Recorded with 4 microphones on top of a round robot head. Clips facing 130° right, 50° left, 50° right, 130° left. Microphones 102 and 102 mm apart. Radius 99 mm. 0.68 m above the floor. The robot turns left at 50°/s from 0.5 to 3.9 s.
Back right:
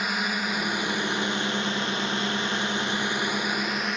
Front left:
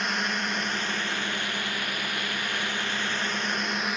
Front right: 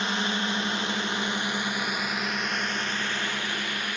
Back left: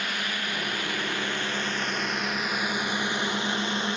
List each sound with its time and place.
0.0 s a drone: 50° right; by 4.0 s 140° left